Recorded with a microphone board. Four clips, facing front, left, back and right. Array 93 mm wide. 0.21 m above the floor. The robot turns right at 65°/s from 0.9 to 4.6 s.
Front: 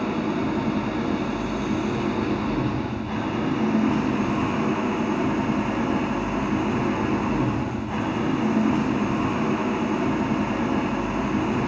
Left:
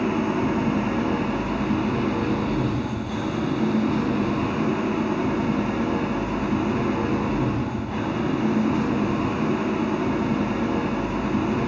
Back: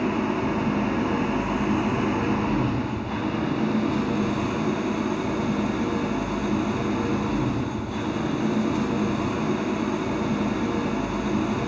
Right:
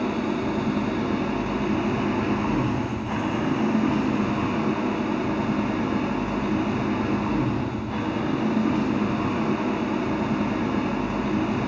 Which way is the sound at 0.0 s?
130° left.